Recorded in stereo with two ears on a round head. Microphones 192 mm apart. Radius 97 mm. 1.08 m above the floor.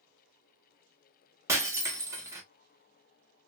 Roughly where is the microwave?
I don't hear a microwave.